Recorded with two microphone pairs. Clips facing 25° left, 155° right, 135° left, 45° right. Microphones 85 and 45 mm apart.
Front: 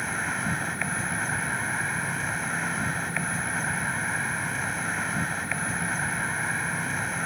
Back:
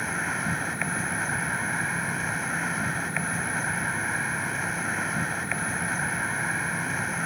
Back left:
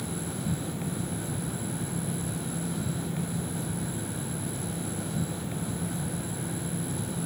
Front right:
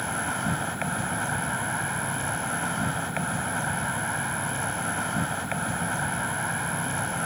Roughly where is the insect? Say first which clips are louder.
Even, front right 6 dB; right.